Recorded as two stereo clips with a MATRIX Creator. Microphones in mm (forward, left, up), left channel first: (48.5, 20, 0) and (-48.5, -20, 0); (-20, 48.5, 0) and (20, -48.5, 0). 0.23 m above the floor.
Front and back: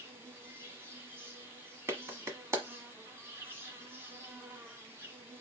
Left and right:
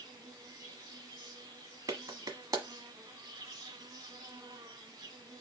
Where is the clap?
105° right, 1.1 m.